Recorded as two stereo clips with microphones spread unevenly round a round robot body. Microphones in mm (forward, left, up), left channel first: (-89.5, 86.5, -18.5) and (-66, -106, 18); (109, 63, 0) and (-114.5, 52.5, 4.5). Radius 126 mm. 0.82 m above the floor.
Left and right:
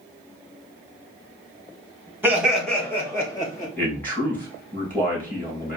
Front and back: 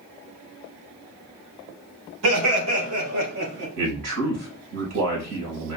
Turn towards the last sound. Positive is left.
turn(degrees=175)